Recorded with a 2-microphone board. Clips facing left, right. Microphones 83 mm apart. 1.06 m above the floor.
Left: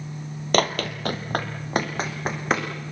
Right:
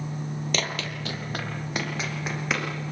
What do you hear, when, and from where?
0.5 s running footsteps: 50° left (ahead or behind), 1.5 m; by 2.7 s 40° left (ahead or behind), 3.5 m